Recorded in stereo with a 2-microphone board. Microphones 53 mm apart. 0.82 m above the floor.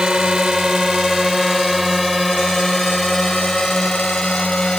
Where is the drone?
15° right (ahead or behind); by 4.8 s 15° left (ahead or behind).